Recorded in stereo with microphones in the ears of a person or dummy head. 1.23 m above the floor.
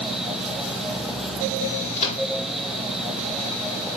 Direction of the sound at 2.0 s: 35° left (ahead or behind).